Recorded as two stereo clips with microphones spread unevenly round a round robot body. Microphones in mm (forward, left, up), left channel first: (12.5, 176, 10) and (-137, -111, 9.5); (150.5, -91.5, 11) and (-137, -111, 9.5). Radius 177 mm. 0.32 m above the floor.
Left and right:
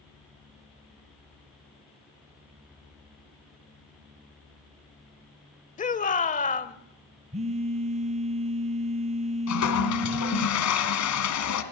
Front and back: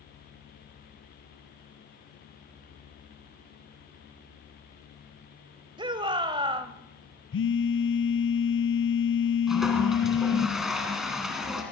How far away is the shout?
About 1.2 m.